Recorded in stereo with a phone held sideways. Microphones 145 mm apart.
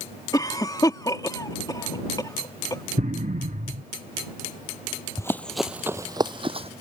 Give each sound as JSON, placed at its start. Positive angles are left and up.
{"t": 0.3, "sound": "a cough", "side_deg": 25}
{"t": 3.0, "sound": "an explosion", "side_deg": -65}
{"t": 5.2, "sound": "running footsteps", "side_deg": 20}